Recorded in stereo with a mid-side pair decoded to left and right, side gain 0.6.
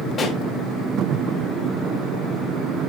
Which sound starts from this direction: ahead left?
A pop, at 0.2 s.